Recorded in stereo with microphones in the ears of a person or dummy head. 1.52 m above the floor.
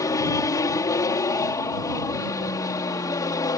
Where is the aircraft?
25° left (ahead or behind).